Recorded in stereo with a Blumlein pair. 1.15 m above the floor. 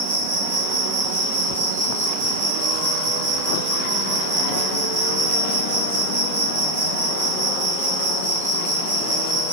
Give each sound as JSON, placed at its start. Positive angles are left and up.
{"t": 0.0, "sound": "an insect", "azimuth_deg": -65, "distance_m": 1.0}